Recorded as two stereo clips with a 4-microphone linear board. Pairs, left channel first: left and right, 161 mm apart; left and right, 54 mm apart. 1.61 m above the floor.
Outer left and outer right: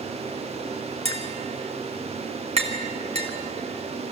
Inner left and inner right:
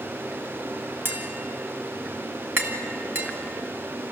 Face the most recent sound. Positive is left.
turn(degrees=-40)  # may be behind; listen again after turning